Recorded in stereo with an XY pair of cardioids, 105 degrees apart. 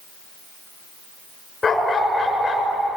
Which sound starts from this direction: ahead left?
A dog barking, at 1.6 s.